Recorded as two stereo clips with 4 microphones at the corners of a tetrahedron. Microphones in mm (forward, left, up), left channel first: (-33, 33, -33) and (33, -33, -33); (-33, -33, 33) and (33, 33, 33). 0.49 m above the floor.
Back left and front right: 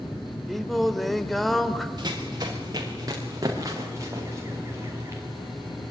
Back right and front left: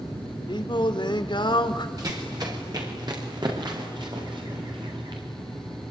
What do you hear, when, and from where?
0.5 s singing: 135° right, 1.5 m
2.0 s running footsteps: 5° right, 6 m; by 5.2 s 15° left, 6 m